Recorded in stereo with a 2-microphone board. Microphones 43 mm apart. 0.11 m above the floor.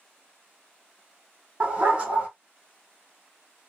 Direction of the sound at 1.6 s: 30° right (ahead or behind).